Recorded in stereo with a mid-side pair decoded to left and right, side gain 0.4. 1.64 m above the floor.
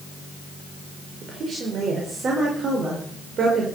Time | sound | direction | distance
1.2 | a woman speaking | 55° right | 5 m